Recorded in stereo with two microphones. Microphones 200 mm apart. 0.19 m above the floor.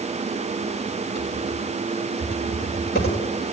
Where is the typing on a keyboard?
50° left (ahead or behind), 9 m.